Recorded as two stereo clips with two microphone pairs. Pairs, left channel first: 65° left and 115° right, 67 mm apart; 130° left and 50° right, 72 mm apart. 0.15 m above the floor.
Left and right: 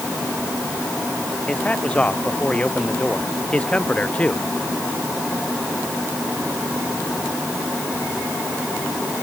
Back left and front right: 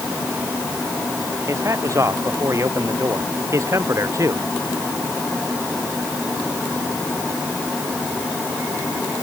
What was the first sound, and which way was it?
A man speaking, 5° right.